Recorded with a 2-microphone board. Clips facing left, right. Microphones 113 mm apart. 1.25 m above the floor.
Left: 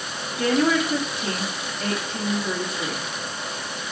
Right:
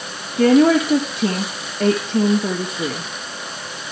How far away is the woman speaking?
About 2 m.